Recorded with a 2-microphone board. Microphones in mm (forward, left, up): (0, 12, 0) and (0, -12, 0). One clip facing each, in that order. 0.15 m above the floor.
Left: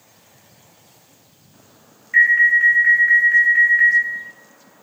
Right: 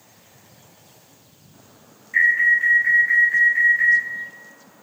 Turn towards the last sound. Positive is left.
turn(degrees=30)  # may be behind; listen again after turning